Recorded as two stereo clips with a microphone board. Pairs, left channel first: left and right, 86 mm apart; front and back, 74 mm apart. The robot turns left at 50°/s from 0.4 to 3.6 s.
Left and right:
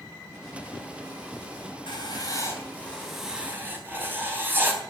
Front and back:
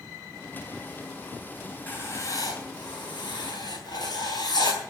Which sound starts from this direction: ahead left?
Writing, at 1.9 s.